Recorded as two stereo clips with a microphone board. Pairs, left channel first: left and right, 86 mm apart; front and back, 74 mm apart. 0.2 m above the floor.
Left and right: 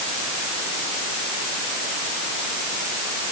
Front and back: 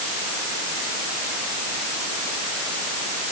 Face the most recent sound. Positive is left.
No sound to turn to.